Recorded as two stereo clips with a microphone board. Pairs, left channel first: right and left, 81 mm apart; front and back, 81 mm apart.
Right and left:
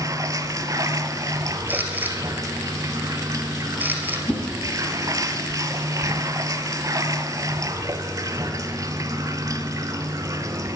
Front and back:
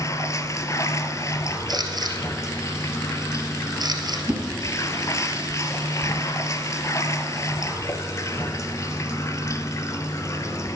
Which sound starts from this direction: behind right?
A whoosh, at 4.3 s.